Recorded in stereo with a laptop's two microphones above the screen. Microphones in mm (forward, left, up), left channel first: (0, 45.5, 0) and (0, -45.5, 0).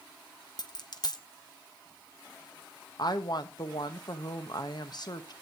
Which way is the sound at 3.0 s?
50° left (ahead or behind).